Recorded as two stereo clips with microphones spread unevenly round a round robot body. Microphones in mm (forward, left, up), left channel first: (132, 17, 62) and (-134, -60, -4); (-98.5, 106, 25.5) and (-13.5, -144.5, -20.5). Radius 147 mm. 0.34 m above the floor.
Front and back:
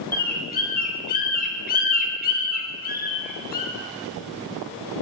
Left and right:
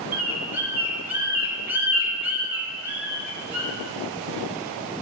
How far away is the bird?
About 0.9 m.